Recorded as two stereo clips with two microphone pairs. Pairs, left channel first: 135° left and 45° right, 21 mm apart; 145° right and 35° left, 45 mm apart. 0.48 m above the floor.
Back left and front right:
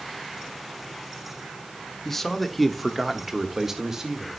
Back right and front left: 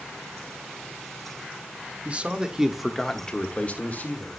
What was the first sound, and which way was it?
A man speaking, 60° left.